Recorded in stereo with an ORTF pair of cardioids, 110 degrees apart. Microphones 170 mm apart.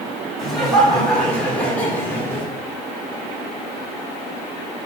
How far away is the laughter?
About 4 m.